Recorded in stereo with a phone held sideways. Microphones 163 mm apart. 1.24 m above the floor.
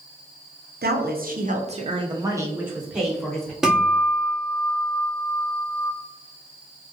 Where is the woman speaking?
80° right, 0.7 m; by 3.5 s 5° left (ahead or behind), 1.2 m.